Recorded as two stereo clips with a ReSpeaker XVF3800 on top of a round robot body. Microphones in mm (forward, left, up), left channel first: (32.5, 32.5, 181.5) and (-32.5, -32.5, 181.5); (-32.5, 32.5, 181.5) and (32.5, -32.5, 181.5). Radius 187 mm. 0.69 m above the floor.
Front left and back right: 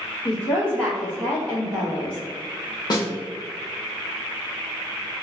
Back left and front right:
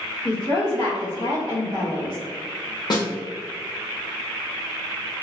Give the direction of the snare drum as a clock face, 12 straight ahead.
9 o'clock.